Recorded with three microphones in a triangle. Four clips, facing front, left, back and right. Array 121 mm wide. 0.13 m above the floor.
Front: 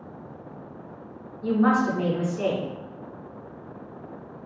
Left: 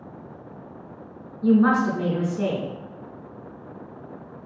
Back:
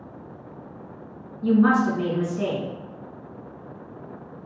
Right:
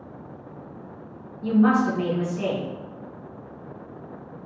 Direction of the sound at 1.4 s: 90° left.